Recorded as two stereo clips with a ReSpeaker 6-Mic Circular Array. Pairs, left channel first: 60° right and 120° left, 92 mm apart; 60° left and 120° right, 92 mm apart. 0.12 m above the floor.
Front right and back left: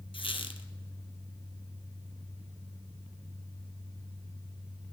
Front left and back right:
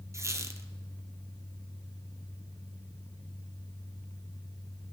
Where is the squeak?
65° right, 1.1 m.